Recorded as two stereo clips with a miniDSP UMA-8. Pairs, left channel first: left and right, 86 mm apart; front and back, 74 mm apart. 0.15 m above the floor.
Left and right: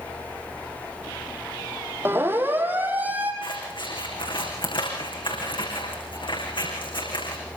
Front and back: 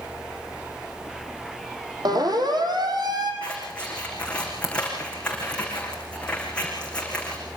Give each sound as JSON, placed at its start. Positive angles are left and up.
{"t": 2.0, "sound": "a siren", "azimuth_deg": -155, "distance_m": 5.5}
{"t": 3.4, "sound": "scissors", "azimuth_deg": 75, "distance_m": 9.0}